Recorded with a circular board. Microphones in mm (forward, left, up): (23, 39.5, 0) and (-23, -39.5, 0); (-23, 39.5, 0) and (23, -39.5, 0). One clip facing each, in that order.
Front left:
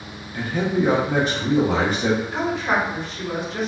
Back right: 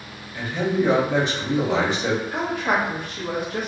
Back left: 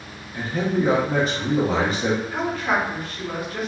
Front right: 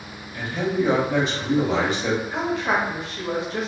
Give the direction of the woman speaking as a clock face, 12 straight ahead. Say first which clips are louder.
Front left 1 dB, even; 4 o'clock.